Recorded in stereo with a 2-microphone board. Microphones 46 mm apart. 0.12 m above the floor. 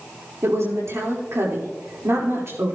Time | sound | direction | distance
0.4 | a woman speaking | 75° right (ahead or behind) | 4.5 m